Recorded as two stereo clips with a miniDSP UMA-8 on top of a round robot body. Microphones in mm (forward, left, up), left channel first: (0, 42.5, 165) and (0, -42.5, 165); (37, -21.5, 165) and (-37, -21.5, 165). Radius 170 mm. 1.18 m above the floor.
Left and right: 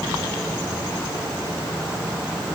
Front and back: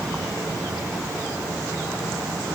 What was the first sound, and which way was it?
Only background noise.